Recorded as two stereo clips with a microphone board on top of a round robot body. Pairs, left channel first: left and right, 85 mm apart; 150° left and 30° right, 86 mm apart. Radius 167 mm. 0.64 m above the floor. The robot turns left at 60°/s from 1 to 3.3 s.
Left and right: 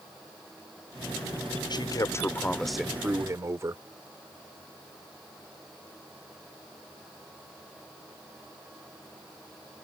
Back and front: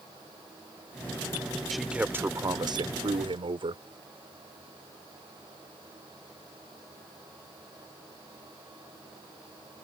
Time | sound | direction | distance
1.7 | a man speaking | 60° left | ?